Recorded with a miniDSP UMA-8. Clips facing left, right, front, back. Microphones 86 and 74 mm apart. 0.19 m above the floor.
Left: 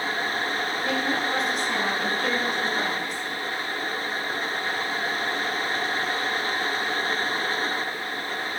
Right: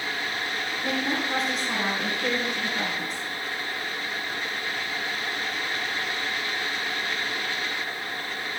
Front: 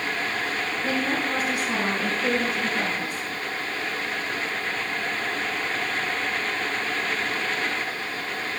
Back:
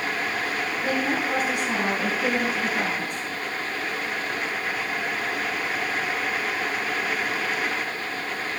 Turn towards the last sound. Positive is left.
turn(degrees=-175)